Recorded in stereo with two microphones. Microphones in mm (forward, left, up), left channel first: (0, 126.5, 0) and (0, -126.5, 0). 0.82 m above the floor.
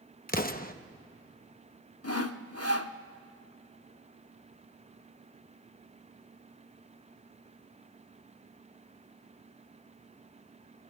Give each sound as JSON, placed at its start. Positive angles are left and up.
{"t": 0.3, "sound": "an explosion", "side_deg": 35, "distance_m": 0.9}
{"t": 2.0, "sound": "sawing", "side_deg": 70, "distance_m": 0.8}